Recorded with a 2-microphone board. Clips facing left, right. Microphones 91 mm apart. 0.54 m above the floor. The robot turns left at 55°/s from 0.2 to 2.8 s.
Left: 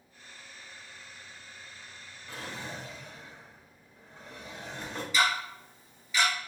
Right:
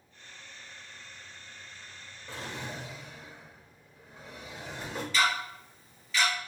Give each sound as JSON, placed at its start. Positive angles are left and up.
{"t": 2.3, "sound": "a drawer", "side_deg": -35, "distance_m": 1.1}
{"t": 5.1, "sound": "ticking", "side_deg": 5, "distance_m": 2.0}